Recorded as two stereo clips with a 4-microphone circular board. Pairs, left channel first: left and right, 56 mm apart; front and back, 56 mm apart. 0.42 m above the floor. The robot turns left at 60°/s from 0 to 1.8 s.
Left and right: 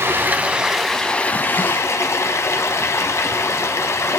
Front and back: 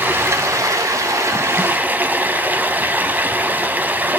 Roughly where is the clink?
I don't hear a clink.